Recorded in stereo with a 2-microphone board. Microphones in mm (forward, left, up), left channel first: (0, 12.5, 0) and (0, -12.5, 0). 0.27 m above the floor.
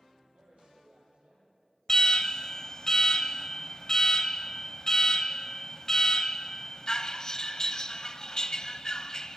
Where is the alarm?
30° left (ahead or behind), 1.1 m.